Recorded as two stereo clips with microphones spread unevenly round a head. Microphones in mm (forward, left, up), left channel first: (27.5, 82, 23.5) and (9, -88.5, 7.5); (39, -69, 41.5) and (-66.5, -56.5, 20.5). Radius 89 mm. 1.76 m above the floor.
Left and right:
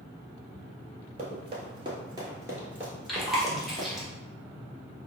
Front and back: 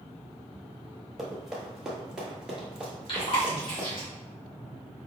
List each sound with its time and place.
1.2 s running footsteps: 85° right, 1.9 m; by 3.9 s 70° left, 1.7 m
3.1 s chewing: 5° right, 1.3 m